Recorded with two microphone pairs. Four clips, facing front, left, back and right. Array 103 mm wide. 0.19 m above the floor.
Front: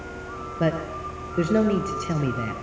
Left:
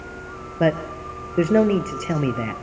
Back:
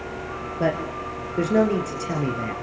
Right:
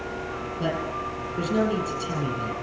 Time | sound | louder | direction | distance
0.6 | a man speaking | left 8 dB, back 1 dB | 95° left | 3.5 m